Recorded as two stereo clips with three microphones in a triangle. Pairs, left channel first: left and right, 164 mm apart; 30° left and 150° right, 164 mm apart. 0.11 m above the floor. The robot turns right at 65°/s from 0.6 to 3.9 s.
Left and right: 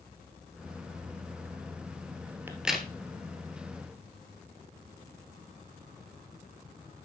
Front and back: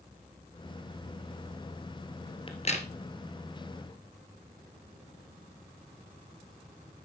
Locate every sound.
2.5 s a crack: 20° right, 1.9 m; by 2.9 s 10° left, 1.9 m